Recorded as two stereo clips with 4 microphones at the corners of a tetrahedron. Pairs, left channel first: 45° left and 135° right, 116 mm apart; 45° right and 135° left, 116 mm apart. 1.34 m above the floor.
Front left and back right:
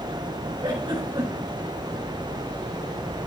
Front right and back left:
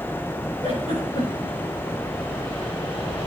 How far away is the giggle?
About 4.5 m.